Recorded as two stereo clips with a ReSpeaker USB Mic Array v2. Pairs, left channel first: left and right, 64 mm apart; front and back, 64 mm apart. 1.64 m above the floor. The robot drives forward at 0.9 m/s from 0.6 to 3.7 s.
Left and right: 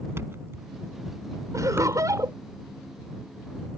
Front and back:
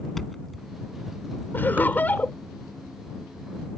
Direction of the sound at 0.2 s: 85° right.